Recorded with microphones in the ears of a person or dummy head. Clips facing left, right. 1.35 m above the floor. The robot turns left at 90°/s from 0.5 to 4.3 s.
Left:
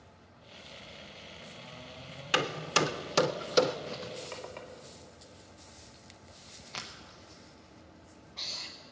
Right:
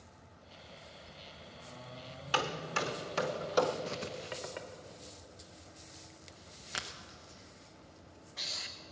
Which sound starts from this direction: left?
Hammering, at 2.3 s.